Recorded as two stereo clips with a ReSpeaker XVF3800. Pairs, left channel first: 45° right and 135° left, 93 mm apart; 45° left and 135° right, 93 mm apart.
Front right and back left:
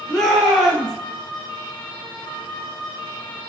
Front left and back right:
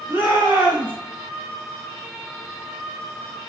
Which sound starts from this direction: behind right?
A shout, at 0.1 s.